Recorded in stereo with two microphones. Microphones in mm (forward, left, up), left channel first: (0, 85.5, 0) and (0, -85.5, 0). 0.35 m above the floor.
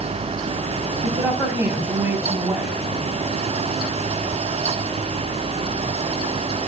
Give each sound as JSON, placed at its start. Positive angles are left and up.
{"t": 1.0, "sound": "a woman speaking", "side_deg": -15, "distance_m": 3.0}